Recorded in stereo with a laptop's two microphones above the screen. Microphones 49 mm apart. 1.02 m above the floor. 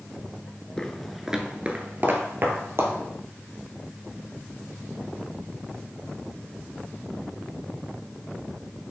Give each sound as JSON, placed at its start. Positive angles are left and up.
{"t": 0.8, "sound": "footsteps", "side_deg": 15, "distance_m": 1.0}